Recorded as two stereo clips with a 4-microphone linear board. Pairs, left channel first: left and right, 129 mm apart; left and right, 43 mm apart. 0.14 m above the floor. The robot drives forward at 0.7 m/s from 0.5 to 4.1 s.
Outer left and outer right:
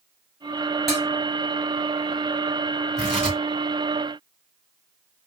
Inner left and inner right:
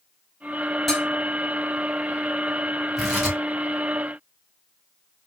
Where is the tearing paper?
5° left (ahead or behind), 2.5 m.